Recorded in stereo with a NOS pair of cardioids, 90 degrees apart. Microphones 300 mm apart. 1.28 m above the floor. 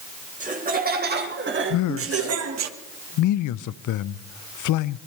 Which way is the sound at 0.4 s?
25° right.